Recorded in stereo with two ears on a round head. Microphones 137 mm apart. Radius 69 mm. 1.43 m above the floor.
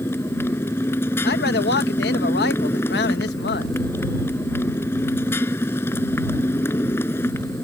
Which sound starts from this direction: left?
A man speaking, at 1.2 s.